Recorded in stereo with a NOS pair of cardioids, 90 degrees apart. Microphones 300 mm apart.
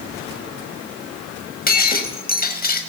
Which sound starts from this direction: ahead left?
Breaking glass, at 1.7 s.